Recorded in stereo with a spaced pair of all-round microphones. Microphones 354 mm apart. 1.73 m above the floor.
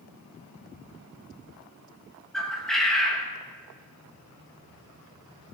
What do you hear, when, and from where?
2.3 s a bird: centre (ahead or behind), 1.6 m